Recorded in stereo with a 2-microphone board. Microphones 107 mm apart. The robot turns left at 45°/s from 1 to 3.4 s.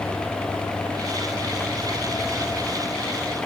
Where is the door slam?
I don't hear a door slam.